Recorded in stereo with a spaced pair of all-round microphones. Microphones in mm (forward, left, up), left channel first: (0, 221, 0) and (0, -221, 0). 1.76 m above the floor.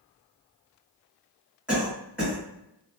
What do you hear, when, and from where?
1.7 s a cough: 5° right (ahead or behind), 1.5 m